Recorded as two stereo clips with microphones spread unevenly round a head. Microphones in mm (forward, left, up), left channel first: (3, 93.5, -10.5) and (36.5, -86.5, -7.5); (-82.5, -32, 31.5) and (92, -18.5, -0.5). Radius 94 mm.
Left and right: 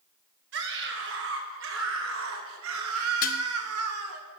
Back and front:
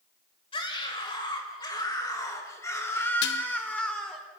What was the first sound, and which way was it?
A scream, 115° right.